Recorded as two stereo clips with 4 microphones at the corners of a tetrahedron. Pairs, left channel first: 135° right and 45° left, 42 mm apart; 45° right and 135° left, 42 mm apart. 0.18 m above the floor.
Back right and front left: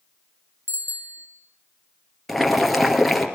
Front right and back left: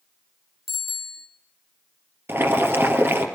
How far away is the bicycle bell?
About 3 m.